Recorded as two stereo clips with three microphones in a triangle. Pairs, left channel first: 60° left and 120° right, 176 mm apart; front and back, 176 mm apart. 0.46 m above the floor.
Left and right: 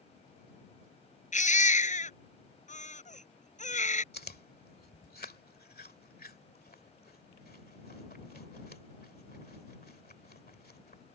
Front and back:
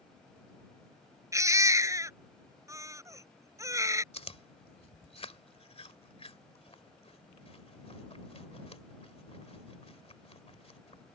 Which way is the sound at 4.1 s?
50° left.